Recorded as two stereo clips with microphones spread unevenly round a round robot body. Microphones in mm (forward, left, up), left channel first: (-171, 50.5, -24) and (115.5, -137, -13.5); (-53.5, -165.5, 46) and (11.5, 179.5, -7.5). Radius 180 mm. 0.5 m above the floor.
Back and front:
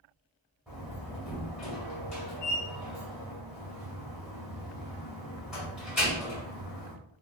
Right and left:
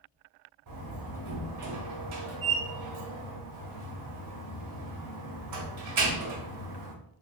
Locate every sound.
0.7 s a door slam: 55° left, 1.9 m